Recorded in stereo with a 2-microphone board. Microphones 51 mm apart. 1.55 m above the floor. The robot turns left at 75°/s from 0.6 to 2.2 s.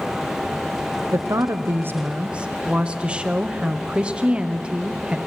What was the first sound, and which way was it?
A woman speaking, 75° right.